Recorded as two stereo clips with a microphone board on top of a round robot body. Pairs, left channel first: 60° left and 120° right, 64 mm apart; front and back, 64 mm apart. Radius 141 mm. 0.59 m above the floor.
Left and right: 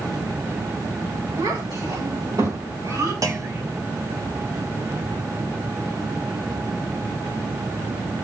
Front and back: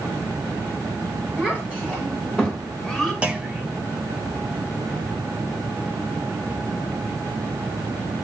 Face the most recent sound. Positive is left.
turn(degrees=-110)